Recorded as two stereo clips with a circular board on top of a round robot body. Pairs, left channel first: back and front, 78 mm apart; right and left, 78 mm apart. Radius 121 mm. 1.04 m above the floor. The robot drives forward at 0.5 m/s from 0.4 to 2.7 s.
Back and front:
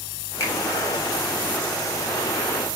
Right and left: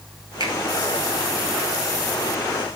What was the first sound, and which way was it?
A finger snap, 125° left.